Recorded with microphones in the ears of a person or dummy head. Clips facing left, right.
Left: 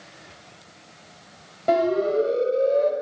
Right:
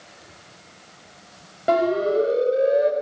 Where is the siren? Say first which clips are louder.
Right 1 dB; 10° right (ahead or behind), 6.5 m; by 2.9 s 15° right (ahead or behind), 5 m.